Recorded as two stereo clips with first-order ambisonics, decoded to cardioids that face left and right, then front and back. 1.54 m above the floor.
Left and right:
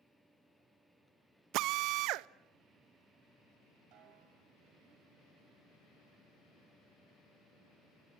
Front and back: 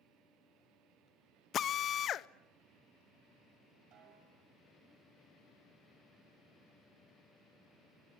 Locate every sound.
1.5 s a drill: 55° right, 0.5 m
3.9 s a snare drum: 130° right, 7 m